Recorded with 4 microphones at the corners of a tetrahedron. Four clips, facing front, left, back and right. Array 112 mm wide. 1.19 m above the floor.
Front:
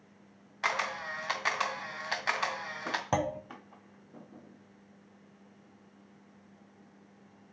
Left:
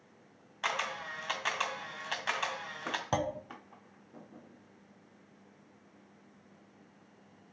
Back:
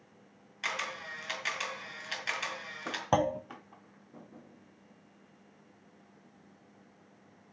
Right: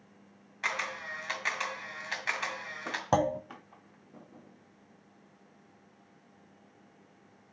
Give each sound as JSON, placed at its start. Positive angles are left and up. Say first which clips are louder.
{"t": 0.6, "sound": "a camera shutter", "louder": "even, front 5 dB", "azimuth_deg": 25, "distance_m": 1.8}
{"t": 3.1, "sound": "a clunk", "louder": "right 7 dB, back 4 dB", "azimuth_deg": -110, "distance_m": 0.5}